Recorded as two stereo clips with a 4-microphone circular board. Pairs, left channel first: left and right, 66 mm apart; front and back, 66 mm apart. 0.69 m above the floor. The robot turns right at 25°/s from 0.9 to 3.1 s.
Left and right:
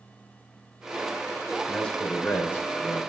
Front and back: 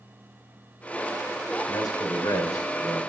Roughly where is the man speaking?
Ahead.